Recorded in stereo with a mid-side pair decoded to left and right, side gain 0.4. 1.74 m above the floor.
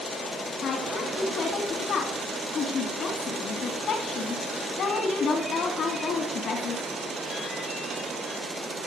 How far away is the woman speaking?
About 3.5 m.